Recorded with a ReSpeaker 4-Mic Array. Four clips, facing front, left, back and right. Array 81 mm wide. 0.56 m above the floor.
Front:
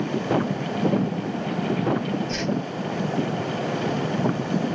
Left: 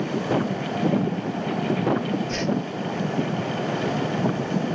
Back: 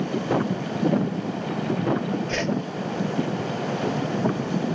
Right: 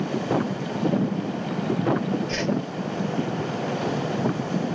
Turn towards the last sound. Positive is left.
turn(degrees=-170)